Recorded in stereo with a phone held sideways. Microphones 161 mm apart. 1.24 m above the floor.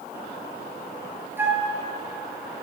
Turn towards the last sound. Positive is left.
turn(degrees=-10)  # may be behind; listen again after turning